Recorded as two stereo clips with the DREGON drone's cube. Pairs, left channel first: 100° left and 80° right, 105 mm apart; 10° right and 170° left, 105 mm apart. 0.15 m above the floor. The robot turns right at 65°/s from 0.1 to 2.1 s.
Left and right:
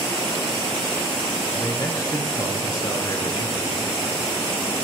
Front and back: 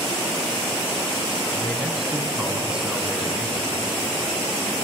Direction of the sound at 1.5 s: 55° left.